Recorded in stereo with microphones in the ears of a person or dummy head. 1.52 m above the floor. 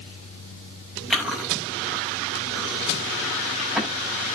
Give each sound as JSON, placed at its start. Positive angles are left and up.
{"t": 1.1, "sound": "chewing", "side_deg": -5, "distance_m": 6.0}